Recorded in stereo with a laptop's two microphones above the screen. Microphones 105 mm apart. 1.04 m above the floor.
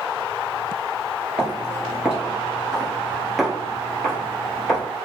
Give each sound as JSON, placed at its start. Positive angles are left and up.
{"t": 1.4, "sound": "footsteps", "side_deg": -10, "distance_m": 1.1}